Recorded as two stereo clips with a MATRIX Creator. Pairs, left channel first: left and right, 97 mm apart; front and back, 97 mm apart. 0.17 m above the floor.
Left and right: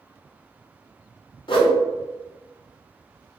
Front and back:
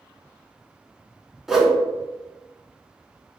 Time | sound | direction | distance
1.5 | a whoosh | 95° left | 0.5 m